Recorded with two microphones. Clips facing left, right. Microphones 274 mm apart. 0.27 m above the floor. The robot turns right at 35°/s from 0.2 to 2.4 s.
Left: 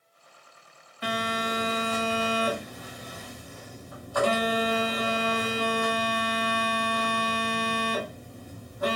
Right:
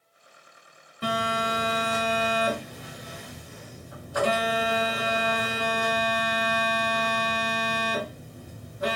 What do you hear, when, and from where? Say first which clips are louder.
1.0 s a phone buzzing: right 1 dB; 80° right, 1.3 m; by 9.0 s 35° right, 1.3 m